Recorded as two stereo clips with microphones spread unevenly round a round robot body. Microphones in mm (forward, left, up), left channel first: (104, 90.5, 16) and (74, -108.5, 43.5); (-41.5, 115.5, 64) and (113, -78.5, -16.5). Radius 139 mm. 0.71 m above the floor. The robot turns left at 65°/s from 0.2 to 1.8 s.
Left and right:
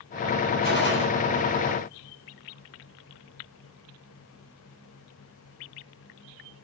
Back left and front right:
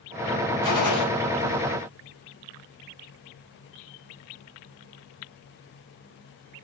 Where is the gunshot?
130° left, 6 m; by 1.1 s 105° left, 6 m.